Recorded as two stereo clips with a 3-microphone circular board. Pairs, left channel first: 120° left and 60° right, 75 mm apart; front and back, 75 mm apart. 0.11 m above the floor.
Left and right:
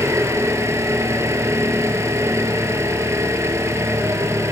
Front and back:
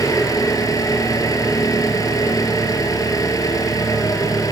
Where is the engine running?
20° right, 2 m.